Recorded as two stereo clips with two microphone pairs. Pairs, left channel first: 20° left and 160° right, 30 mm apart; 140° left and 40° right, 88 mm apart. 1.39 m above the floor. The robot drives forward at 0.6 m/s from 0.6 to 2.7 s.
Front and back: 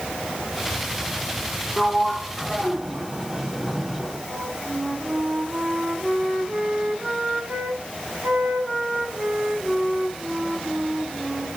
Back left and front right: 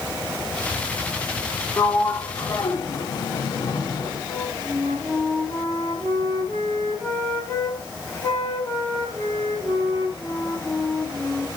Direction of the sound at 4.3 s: 175° right.